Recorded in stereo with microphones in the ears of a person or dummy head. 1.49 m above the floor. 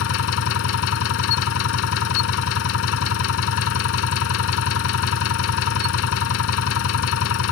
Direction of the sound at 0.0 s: 70° left (ahead or behind).